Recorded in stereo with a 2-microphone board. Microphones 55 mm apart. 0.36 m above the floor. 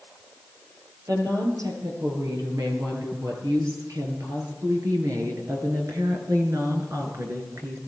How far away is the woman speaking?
About 7 m.